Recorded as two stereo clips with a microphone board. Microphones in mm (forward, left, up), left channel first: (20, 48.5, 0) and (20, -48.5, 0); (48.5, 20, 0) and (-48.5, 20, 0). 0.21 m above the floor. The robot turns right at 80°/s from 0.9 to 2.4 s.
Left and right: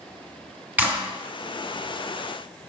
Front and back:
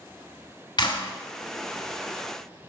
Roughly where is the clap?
Ahead.